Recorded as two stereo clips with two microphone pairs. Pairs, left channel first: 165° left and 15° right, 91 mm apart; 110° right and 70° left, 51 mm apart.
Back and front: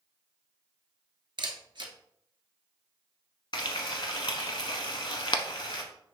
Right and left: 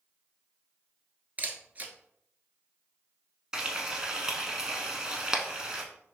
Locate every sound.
1.4 s a camera shutter: 10° left, 0.9 m
3.5 s frying: 140° left, 0.7 m